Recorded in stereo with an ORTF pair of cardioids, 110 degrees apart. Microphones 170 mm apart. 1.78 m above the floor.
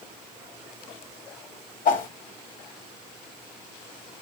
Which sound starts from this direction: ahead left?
A whoosh, at 1.9 s.